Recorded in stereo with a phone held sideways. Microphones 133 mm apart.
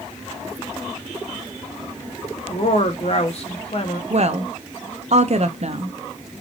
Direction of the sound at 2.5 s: 50° left (ahead or behind).